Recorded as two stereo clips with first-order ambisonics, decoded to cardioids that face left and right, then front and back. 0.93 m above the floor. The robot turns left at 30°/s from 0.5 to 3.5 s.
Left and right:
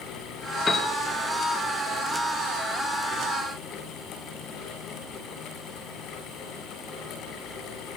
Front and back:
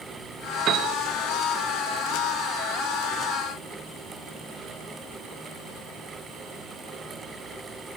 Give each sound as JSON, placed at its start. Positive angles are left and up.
{"t": 0.7, "sound": "a piano", "azimuth_deg": 155, "distance_m": 0.5}